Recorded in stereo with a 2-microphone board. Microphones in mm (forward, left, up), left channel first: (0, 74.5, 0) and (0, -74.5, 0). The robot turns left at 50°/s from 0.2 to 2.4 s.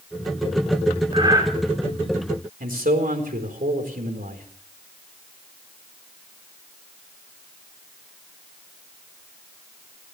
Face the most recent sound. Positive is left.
turn(degrees=-80)